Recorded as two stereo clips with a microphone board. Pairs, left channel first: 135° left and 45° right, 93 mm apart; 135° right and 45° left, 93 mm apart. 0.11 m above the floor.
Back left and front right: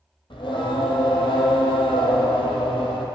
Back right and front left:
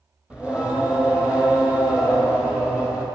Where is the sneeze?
I don't hear a sneeze.